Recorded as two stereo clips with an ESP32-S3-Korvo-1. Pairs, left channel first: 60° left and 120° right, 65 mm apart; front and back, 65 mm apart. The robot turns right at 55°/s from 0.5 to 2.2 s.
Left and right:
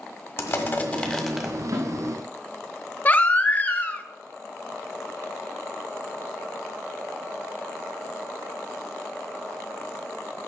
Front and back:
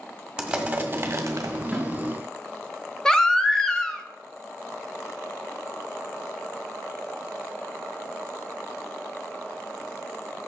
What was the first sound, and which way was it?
Crushing, 110° left.